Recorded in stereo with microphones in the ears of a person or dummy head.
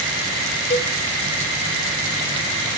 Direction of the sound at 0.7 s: 30° left (ahead or behind).